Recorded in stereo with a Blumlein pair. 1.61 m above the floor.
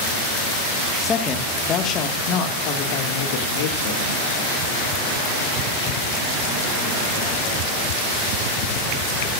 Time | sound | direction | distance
1.0 | a woman speaking | 15° left | 1.9 m